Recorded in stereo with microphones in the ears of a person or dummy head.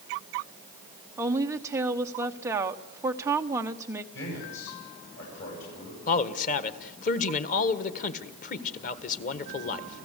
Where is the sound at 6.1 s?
45° left (ahead or behind), 1.4 m.